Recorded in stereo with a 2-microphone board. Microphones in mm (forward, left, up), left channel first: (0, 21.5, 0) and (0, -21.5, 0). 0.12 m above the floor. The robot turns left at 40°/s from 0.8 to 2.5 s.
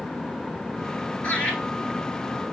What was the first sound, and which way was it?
Laughter, 35° left (ahead or behind).